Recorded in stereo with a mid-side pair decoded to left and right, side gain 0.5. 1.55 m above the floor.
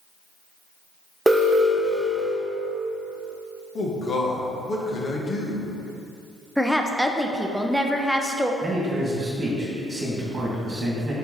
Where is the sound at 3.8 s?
50° left, 1.6 m.